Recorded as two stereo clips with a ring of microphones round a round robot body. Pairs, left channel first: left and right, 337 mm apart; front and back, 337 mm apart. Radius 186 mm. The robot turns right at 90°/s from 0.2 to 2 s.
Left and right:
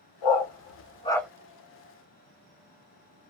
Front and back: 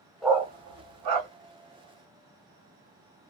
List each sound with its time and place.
0.2 s a dog barking: 90° left, 1.2 m; by 1.3 s 175° right, 1.2 m